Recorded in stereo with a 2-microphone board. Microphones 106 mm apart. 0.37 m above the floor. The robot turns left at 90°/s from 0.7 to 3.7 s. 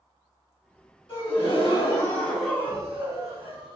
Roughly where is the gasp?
Behind left.